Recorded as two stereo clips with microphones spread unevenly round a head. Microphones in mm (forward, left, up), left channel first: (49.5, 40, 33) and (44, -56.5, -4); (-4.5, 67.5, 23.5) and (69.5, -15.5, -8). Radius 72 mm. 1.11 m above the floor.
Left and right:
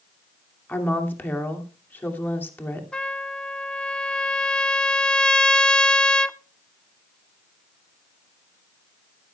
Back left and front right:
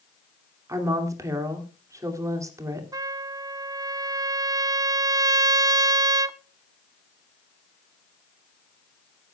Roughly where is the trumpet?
Ahead.